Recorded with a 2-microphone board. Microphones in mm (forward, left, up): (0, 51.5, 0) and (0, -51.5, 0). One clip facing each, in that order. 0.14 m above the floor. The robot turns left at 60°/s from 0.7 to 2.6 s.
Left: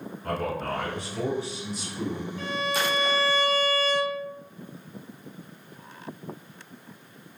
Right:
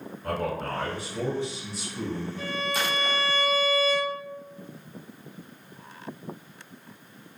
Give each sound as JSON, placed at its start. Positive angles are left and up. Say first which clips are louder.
{"t": 0.2, "sound": "a man speaking", "louder": "even", "azimuth_deg": 5, "distance_m": 1.5}
{"t": 2.4, "sound": "a violin", "louder": "left 4 dB", "side_deg": -5, "distance_m": 0.6}